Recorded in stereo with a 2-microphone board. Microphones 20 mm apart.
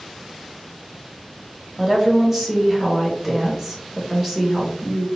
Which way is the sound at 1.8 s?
20° right (ahead or behind).